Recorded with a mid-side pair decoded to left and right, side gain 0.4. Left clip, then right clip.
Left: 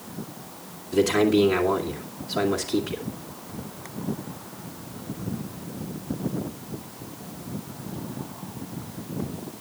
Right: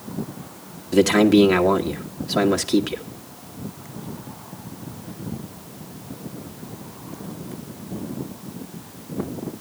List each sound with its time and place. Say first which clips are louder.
0.9 s a man speaking: right 5 dB; 65° right, 1.7 m